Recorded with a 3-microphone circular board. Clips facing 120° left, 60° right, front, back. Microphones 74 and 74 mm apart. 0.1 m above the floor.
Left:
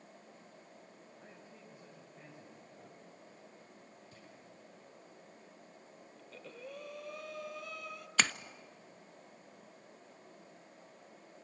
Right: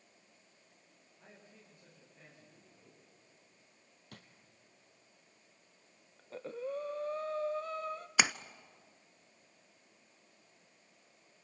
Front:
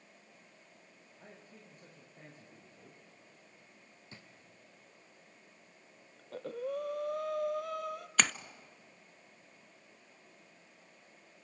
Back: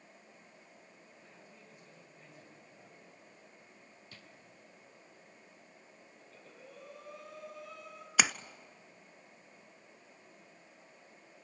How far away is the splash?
About 0.6 m.